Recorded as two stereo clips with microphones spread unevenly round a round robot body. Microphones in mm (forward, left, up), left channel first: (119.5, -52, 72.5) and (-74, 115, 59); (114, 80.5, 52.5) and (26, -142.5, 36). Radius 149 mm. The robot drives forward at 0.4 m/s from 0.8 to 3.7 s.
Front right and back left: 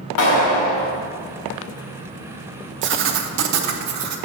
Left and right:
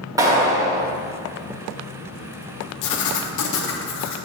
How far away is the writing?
About 0.7 m.